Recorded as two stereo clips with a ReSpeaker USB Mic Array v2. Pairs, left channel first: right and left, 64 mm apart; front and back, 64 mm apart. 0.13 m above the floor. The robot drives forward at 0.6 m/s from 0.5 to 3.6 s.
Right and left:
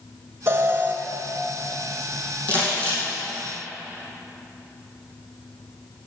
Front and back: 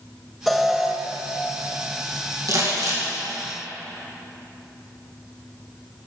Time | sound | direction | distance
0.5 | an alarm | 85° left | 1.1 m
2.5 | crumpling | 155° right | 5 m